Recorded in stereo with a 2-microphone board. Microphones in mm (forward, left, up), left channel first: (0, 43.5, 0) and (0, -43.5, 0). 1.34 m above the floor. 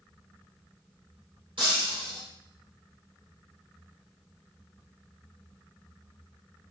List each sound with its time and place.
1.6 s breaking glass: 75° right (ahead or behind), 3 m